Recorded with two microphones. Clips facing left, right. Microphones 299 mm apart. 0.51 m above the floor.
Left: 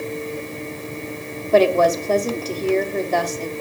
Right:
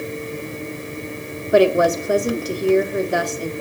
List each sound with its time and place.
1.5 s a woman speaking: 15° right (ahead or behind), 0.8 m